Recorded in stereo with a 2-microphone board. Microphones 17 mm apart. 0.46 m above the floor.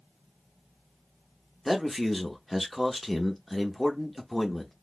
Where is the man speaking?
5° left (ahead or behind), 0.9 m.